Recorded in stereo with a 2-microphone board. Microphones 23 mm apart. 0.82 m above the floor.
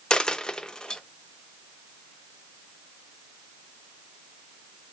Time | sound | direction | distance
0.1 | a dropped coin | 35° left (ahead or behind) | 0.6 m